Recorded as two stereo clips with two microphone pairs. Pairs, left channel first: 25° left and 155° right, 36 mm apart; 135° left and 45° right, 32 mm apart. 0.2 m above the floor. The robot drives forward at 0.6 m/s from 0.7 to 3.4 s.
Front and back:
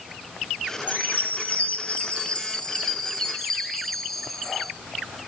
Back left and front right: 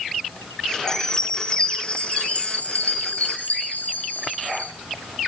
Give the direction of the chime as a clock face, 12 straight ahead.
10 o'clock.